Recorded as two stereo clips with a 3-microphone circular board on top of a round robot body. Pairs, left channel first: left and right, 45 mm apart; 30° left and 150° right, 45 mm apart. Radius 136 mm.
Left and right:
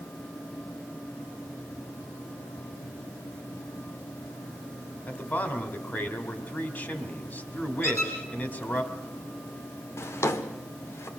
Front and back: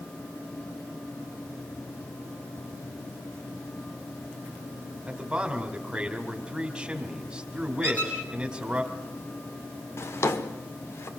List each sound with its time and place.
5.1 s a man speaking: 135° left, 3 m
7.8 s a squeak: 85° left, 5 m
10.0 s a drawer: 60° left, 0.8 m